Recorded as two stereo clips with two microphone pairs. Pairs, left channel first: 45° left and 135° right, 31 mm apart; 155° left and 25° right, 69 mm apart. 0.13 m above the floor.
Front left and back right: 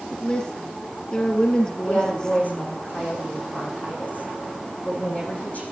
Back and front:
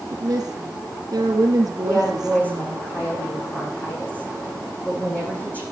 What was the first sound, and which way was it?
A woman speaking, 15° right.